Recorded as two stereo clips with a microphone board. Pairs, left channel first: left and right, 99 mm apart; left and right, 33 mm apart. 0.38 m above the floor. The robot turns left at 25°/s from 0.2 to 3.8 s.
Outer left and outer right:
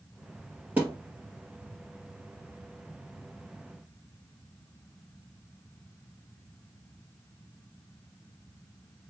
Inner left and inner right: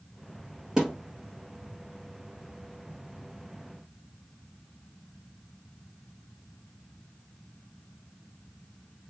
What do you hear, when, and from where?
0.8 s a thud: 15° right (ahead or behind), 2 m; by 0.9 s 20° right (ahead or behind), 2 m